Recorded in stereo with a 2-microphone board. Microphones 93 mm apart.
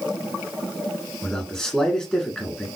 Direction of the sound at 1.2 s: 5° left (ahead or behind).